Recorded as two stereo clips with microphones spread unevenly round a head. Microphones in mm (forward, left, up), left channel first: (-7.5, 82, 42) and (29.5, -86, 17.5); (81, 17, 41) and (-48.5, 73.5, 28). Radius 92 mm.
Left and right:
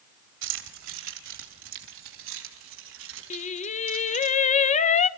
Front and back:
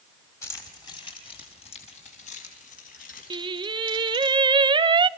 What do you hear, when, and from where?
0.4 s keys jangling: 95° right, 3 m; by 4.3 s 65° right, 6.5 m
3.3 s singing: 135° left, 0.6 m